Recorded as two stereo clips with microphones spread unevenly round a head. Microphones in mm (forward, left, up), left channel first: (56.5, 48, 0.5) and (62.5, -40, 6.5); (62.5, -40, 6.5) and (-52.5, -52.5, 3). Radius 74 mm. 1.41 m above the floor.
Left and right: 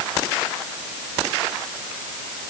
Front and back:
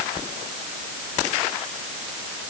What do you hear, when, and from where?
Only background noise.